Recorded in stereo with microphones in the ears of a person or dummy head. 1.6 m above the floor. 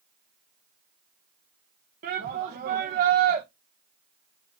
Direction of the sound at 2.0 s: 50° right (ahead or behind).